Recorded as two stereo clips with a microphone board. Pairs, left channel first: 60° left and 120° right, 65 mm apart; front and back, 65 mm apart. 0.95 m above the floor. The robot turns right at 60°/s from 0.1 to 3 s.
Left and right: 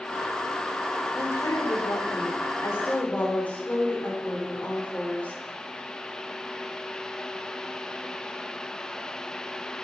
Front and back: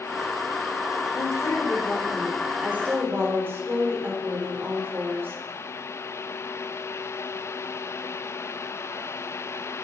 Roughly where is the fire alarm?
I don't hear a fire alarm.